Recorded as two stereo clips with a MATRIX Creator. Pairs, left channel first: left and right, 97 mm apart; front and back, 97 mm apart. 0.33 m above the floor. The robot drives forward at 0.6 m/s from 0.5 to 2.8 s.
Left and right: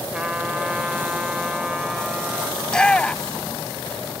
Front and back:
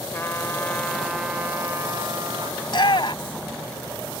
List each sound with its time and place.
0.1 s a trumpet: 25° right; by 2.5 s 170° right
2.6 s a shout: 10° left